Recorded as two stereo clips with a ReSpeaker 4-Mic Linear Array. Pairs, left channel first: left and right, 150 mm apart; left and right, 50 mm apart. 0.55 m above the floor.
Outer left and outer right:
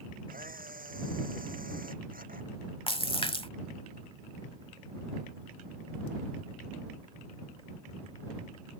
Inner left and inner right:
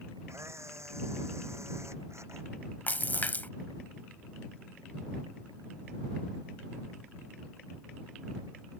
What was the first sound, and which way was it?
A camera shutter, 70° right (ahead or behind).